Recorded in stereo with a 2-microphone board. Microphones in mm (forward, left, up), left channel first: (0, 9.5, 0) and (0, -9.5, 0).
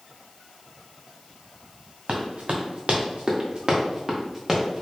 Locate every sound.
2.1 s running footsteps: 65° right (ahead or behind), 1.8 m; by 4.8 s centre (ahead or behind), 1.5 m